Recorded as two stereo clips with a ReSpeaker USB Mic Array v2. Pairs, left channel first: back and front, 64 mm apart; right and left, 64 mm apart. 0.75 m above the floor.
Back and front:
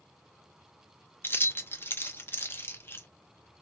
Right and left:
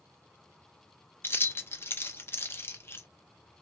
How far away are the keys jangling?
About 0.7 m.